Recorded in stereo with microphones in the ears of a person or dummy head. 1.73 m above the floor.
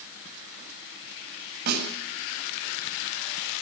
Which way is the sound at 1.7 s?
55° right (ahead or behind).